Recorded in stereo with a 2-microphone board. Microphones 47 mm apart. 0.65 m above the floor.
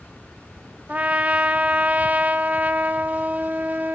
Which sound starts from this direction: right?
A trumpet, at 0.9 s.